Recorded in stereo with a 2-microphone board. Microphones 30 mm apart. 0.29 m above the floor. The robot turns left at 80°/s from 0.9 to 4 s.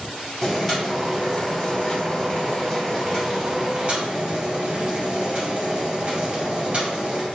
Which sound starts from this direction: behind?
Boiling, at 0.4 s.